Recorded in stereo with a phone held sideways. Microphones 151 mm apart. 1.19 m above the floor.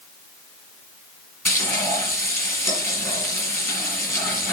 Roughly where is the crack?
I don't hear a crack.